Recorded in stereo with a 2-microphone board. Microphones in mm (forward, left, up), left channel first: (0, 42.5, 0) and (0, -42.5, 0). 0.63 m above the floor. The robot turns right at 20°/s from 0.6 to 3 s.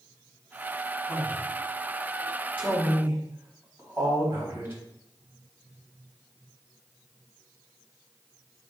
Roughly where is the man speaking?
Centre.